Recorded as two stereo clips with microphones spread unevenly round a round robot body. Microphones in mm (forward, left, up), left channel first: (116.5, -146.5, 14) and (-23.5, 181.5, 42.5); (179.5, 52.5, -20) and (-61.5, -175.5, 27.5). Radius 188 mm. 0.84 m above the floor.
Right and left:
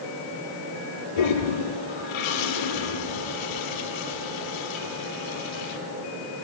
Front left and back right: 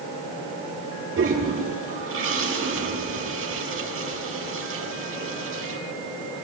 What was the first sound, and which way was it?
A toilet flushing, 80° right.